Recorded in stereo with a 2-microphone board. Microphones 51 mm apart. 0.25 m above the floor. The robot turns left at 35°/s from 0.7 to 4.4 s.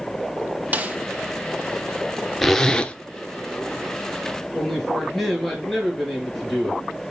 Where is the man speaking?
5° left (ahead or behind), 4.5 m.